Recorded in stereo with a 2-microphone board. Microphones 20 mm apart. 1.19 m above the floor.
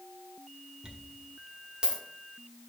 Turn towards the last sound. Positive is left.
turn(degrees=-40)  # may be behind; listen again after turning